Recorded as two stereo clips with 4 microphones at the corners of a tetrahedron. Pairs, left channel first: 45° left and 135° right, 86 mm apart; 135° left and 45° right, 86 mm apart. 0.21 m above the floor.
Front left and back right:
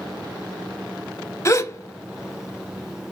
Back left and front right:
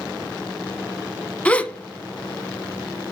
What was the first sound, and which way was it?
A gasp, 70° left.